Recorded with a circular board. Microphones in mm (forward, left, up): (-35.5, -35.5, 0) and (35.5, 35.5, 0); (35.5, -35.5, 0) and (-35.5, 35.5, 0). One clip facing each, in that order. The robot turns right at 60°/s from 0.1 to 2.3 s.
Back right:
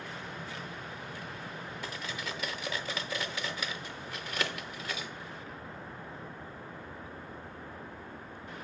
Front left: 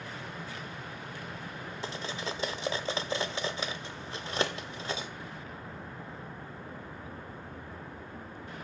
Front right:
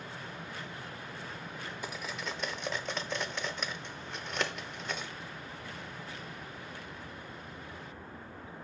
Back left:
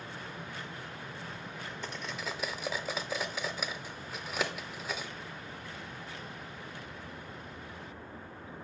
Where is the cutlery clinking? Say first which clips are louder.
Front left 5 dB, even; 25° left, 0.6 m; by 5.1 s 55° left, 0.6 m.